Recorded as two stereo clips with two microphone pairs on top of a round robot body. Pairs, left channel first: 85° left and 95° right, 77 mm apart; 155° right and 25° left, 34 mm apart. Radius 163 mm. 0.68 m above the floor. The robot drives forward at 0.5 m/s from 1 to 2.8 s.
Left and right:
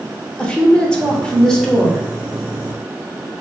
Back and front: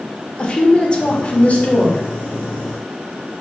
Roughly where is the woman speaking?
Behind.